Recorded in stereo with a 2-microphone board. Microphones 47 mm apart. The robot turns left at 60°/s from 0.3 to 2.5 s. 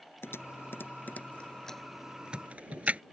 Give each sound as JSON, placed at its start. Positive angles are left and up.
{"t": 0.2, "sound": "typing on a keyboard", "side_deg": 55}